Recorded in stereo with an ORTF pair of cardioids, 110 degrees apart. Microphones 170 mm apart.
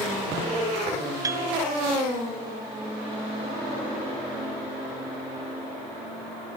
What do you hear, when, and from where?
1.2 s a piano: 20° right, 0.7 m